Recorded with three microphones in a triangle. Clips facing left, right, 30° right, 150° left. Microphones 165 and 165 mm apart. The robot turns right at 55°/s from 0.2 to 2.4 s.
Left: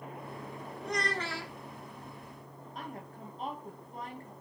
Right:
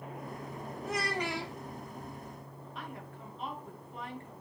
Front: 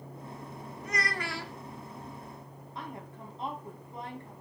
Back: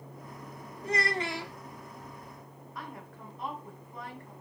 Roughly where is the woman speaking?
Ahead left.